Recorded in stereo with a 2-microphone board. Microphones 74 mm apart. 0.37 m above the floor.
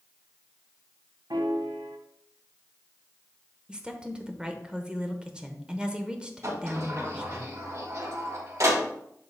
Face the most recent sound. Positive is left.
turn(degrees=-55)  # may be behind; listen again after turning